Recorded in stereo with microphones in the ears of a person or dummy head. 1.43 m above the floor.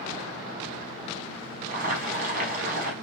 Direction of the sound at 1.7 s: 40° right (ahead or behind).